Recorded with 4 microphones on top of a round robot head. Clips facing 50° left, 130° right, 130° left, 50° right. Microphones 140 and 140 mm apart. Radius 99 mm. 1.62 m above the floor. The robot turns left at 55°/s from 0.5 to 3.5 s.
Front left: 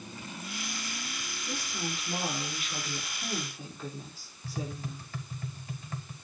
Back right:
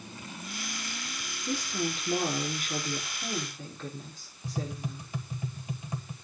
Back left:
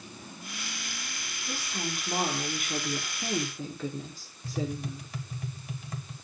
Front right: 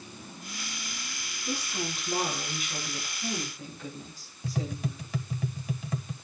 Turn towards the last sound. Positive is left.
turn(degrees=-55)